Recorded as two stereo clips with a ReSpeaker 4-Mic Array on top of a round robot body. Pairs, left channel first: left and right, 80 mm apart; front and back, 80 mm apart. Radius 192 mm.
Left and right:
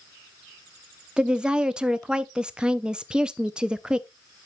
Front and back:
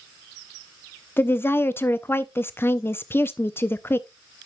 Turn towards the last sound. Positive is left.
turn(degrees=-20)